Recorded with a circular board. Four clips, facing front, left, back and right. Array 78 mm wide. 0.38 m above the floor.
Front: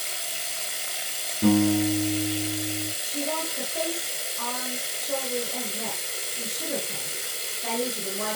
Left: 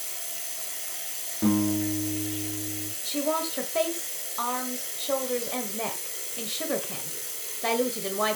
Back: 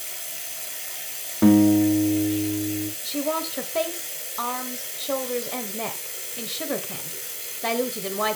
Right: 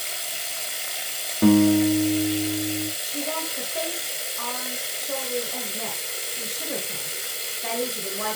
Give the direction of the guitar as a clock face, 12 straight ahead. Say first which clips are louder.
Right 8 dB, back 5 dB; 5 o'clock.